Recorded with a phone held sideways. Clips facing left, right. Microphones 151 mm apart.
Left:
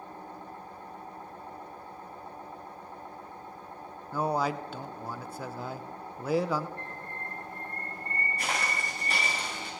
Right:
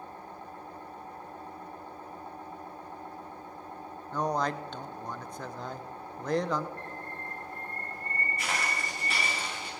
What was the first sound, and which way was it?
A man speaking, 5° left (ahead or behind).